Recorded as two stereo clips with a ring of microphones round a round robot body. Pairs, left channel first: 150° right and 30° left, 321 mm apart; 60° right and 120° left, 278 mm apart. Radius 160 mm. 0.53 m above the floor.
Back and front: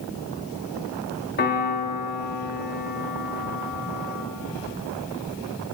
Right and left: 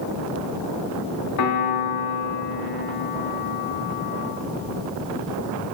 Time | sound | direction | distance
1.4 | a piano | 90° right | 2.0 m